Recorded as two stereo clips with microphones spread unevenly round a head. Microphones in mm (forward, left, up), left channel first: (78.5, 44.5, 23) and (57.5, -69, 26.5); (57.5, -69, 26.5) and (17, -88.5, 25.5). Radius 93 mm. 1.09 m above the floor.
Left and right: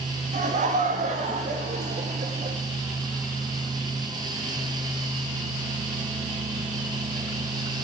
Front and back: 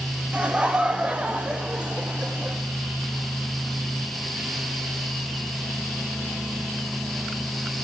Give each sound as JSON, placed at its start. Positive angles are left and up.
{"t": 0.3, "sound": "laughter", "azimuth_deg": -90, "distance_m": 2.0}